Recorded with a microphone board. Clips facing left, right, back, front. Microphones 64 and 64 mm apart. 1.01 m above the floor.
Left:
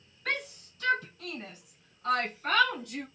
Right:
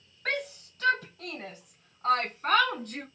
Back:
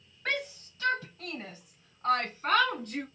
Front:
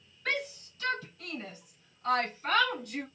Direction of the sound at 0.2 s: 120° right.